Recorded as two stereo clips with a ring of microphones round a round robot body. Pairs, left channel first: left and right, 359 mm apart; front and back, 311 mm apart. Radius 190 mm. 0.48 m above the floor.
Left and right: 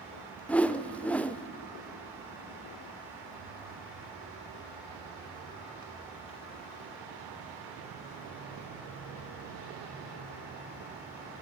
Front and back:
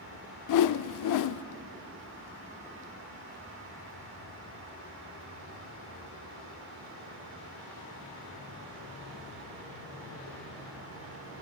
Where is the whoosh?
5° left, 0.7 m.